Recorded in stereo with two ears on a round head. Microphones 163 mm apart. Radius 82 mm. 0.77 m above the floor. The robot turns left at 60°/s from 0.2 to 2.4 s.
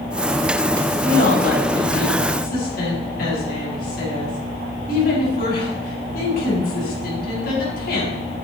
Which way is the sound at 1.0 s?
140° left.